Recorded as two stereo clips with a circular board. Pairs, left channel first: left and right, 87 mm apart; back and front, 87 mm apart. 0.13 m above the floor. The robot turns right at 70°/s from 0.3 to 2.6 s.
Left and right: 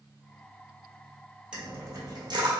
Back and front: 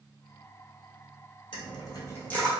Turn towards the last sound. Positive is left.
turn(degrees=-95)